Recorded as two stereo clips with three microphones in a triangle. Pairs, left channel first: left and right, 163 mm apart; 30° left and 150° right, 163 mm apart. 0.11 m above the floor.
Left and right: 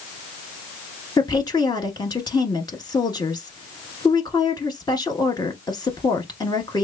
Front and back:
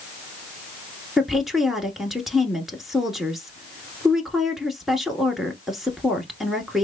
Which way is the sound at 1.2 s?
125° left.